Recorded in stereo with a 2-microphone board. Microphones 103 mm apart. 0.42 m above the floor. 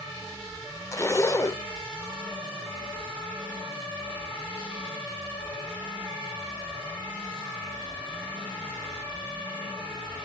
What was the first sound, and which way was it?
A zipper, 30° left (ahead or behind).